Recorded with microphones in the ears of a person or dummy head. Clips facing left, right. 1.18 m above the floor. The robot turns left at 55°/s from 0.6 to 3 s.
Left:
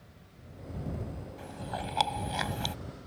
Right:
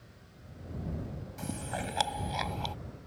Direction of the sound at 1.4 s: 55° right (ahead or behind).